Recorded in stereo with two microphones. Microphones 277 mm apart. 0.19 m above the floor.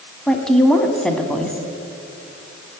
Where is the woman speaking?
5° left (ahead or behind), 1.5 m.